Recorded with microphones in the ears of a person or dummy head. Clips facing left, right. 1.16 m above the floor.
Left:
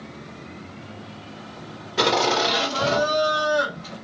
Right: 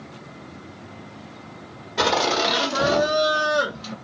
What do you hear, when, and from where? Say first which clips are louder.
2.0 s laughter: left 1 dB; 5° left (ahead or behind), 1.3 m; by 4.0 s 60° right (ahead or behind), 0.9 m